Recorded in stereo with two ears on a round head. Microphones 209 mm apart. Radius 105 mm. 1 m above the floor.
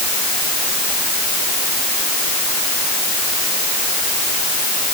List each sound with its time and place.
Only background noise.